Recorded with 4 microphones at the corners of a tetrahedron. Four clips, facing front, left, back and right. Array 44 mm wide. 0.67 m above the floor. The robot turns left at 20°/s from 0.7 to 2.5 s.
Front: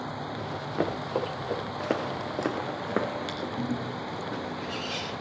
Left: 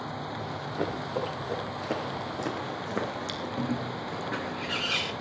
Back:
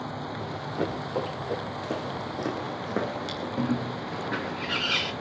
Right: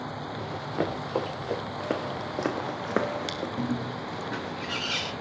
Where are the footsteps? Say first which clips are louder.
Right 1 dB, front 2 dB; 25° right, 2.5 m; by 3.5 s 85° right, 3 m.